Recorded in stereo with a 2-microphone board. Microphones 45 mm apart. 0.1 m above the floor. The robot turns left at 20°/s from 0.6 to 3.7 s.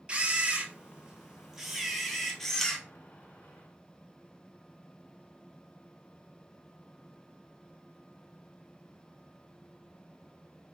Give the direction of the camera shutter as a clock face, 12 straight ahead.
5 o'clock.